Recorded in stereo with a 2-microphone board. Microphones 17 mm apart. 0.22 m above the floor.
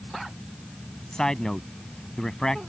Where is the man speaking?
40° left (ahead or behind).